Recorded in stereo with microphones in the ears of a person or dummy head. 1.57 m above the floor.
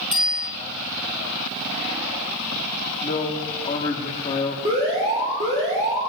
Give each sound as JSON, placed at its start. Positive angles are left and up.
{"t": 0.1, "sound": "a bicycle bell", "side_deg": -5, "distance_m": 7.5}
{"t": 3.0, "sound": "a man speaking", "side_deg": 35, "distance_m": 1.6}
{"t": 4.7, "sound": "an alarm", "side_deg": -35, "distance_m": 7.5}